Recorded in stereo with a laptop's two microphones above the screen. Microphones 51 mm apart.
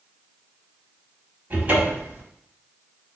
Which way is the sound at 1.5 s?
30° right (ahead or behind).